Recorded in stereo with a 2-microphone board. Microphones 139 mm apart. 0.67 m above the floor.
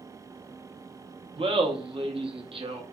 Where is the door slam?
No door slam in this recording.